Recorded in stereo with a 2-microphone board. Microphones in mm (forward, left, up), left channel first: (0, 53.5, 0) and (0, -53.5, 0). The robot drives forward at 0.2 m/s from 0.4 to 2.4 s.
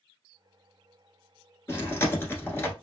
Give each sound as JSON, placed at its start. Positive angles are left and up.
{"t": 1.7, "sound": "chewing", "side_deg": 25, "distance_m": 1.3}